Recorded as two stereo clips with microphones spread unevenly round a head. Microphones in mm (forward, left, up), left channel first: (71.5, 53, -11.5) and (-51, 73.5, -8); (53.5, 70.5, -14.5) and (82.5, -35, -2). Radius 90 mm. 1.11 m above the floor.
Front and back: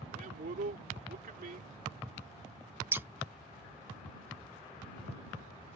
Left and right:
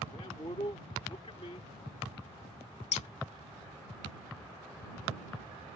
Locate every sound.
0.1 s a man speaking: 170° left
2.9 s scissors: 100° left